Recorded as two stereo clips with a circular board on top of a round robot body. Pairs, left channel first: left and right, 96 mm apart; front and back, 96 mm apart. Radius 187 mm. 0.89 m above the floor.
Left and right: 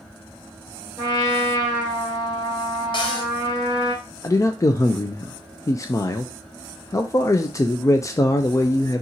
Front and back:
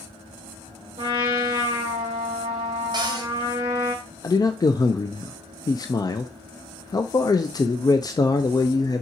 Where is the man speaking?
40° left, 0.6 m.